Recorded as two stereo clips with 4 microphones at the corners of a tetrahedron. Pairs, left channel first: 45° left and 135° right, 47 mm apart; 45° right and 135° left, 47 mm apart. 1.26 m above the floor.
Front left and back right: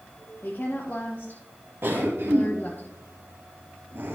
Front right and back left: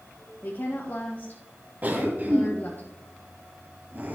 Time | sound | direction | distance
0.4 | a woman speaking | straight ahead | 1.2 m
1.8 | a cough | 170° right | 1.5 m